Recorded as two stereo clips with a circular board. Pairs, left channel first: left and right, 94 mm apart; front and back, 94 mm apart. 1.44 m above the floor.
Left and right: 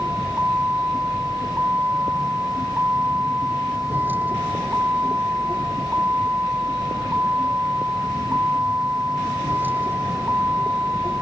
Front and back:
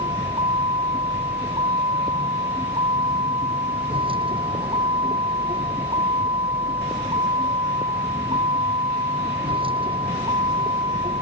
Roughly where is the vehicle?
Behind.